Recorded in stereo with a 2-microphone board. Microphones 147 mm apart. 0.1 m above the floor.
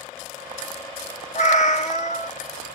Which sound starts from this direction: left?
A cat meowing, at 1.4 s.